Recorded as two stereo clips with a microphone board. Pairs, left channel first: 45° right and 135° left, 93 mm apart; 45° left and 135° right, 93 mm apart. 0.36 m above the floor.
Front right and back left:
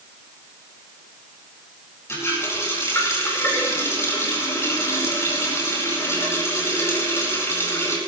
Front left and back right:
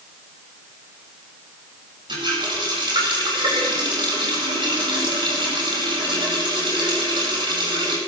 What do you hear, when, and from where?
2.1 s a running tap: 105° right, 8.5 m